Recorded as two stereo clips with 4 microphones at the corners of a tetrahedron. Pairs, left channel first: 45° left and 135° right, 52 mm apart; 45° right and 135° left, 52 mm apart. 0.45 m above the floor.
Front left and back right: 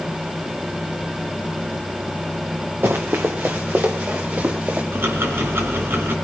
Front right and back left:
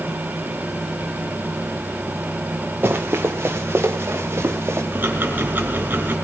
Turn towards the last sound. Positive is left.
turn(degrees=-175)